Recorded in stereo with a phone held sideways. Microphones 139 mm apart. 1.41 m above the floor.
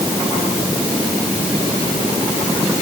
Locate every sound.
Only background noise.